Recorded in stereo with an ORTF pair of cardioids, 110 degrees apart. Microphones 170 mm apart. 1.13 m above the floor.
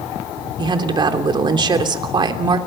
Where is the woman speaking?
25° right, 3 m.